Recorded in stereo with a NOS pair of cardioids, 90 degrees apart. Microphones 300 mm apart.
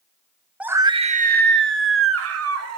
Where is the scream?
5° right, 1.8 m; by 2.8 s 60° right, 3.5 m.